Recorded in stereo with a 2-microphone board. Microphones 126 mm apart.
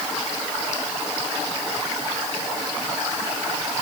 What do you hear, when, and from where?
Only background noise.